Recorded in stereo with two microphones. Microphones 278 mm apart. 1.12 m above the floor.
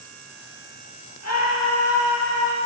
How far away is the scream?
About 1.9 m.